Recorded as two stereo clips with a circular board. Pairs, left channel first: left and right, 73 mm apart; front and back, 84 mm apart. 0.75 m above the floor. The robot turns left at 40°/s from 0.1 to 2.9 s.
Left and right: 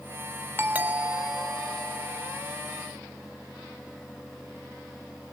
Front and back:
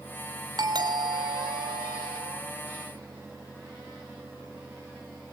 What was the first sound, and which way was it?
A doorbell, 150° right.